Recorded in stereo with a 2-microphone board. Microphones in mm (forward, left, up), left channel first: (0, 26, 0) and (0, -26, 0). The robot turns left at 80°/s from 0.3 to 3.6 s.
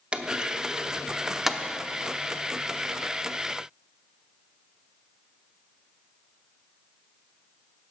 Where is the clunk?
20° right (ahead or behind), 0.7 m; by 1.6 s centre (ahead or behind), 0.7 m.